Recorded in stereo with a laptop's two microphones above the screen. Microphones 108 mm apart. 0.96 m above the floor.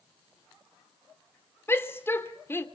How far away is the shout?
About 3 m.